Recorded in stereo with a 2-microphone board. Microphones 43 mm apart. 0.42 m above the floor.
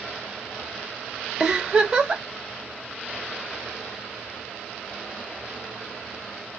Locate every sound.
1.4 s a giggle: 20° right (ahead or behind), 0.7 m